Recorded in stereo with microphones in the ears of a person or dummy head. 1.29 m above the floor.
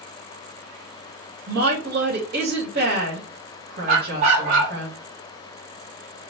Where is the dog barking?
45° right (ahead or behind), 2 m.